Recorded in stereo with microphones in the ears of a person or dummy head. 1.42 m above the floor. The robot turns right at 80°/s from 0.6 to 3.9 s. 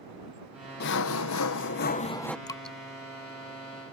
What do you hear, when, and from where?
0.8 s sawing: 55° left; by 2.4 s straight behind
2.5 s dripping: 20° left (ahead or behind); by 2.8 s 5° right (ahead or behind)